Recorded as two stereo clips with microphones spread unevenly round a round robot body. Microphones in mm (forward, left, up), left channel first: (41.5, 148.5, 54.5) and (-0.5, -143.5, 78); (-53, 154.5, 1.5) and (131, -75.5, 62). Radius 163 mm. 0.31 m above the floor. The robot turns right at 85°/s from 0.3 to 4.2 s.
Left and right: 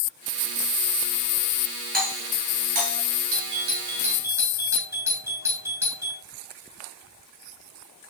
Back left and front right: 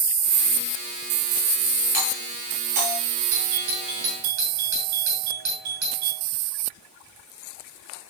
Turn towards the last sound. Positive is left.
turn(degrees=-15)